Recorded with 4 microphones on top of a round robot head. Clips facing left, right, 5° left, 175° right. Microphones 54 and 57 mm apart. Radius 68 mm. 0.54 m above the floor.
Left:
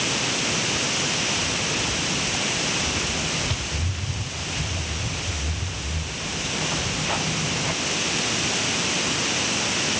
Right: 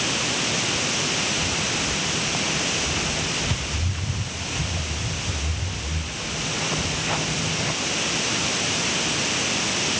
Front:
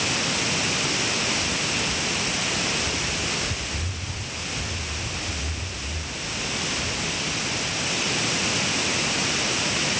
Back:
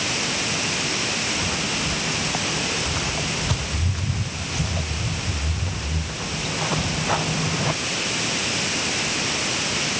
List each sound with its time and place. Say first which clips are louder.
1.4 s footsteps: even, back 1 dB; 170° right; by 7.8 s 175° left